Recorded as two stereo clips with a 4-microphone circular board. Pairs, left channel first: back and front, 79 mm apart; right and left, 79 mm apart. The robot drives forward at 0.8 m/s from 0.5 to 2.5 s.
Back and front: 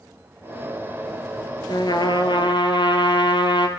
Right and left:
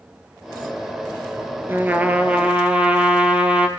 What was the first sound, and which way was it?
A trumpet, 155° left.